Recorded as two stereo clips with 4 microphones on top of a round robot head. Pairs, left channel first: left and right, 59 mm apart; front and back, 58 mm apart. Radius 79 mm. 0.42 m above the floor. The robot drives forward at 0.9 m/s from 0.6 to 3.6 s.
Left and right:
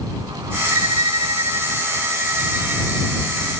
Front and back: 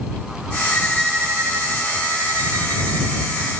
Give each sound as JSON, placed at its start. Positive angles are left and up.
{"t": 0.7, "sound": "a violin", "azimuth_deg": -65}